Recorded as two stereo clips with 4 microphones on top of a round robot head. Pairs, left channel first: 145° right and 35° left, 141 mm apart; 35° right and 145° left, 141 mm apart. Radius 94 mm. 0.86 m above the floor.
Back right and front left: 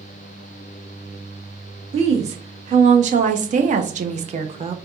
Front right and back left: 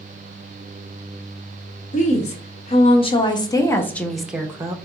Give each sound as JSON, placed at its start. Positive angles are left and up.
{"t": 1.9, "sound": "a woman speaking", "azimuth_deg": -5, "distance_m": 1.5}